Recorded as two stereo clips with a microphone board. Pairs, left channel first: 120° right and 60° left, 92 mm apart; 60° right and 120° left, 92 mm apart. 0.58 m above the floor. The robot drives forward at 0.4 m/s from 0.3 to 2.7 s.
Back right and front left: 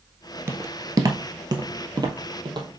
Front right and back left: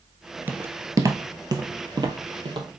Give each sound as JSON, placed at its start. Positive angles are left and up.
{"t": 0.5, "sound": "footsteps", "azimuth_deg": 75, "distance_m": 0.6}